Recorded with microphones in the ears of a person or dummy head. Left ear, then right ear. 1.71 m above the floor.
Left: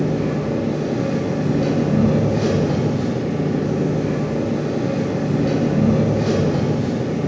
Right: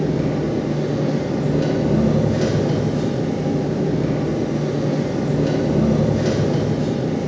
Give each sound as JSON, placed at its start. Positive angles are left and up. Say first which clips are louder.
{"t": 0.0, "sound": "an engine running", "louder": "even", "side_deg": -60, "distance_m": 2.0}